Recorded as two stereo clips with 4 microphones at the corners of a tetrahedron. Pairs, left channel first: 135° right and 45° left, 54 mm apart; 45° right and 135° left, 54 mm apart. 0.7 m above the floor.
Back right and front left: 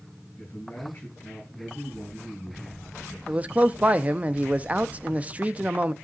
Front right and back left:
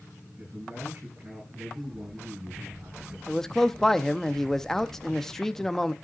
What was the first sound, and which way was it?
A man speaking, 170° left.